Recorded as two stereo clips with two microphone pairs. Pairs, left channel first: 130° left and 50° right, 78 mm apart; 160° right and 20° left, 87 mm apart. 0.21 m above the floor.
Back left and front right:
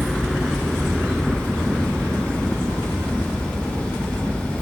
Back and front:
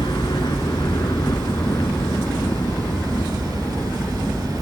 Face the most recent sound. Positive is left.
turn(degrees=-115)